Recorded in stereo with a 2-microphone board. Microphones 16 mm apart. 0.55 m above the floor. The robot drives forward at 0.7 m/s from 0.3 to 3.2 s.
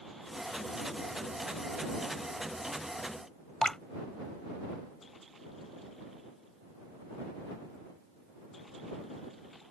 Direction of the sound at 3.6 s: 50° left (ahead or behind).